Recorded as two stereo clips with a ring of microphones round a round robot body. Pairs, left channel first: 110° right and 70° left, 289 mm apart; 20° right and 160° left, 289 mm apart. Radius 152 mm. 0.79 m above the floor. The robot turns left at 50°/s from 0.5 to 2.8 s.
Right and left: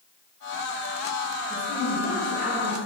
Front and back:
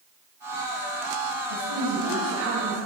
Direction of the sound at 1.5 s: 170° left.